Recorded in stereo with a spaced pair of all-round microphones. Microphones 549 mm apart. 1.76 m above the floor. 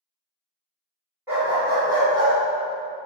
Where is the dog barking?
5° right (ahead or behind), 1.9 m; by 2.3 s 20° right (ahead or behind), 2 m.